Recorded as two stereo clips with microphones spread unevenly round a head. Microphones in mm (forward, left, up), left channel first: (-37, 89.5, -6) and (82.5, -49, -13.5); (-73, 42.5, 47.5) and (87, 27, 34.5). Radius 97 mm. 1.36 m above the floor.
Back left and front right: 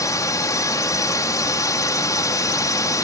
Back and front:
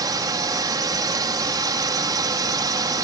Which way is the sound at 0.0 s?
60° left.